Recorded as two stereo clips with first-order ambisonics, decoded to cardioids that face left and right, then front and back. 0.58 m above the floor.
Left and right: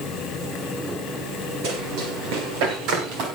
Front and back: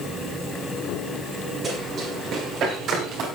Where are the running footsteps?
105° right, 7 m; by 3.3 s 130° right, 6.5 m.